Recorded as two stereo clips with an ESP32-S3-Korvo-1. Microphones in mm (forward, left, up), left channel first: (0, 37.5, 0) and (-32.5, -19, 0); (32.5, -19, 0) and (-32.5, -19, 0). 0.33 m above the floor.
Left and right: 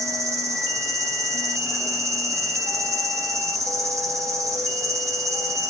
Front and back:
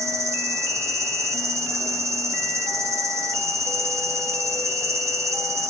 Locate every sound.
0.0 s an insect: 150° right, 0.8 m